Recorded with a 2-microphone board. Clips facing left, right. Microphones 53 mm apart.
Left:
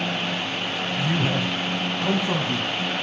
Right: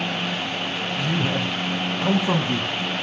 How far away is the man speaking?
About 1.4 m.